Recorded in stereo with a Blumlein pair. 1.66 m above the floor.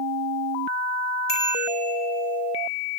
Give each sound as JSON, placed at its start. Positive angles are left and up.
{"t": 1.3, "sound": "a bicycle bell", "azimuth_deg": 35, "distance_m": 9.0}